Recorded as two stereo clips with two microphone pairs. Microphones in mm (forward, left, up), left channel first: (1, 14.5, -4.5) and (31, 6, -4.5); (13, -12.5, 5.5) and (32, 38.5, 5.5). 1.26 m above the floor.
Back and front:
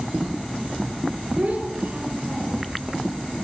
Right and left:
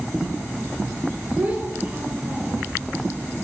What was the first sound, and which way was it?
A child speaking, 20° left.